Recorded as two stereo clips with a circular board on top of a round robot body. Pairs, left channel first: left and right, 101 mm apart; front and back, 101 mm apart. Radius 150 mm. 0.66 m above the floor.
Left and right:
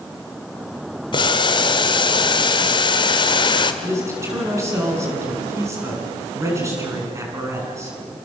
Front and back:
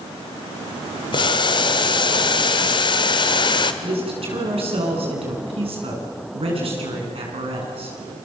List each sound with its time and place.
1.1 s boiling: 45° left, 1.0 m
3.8 s a man speaking: 155° right, 7.5 m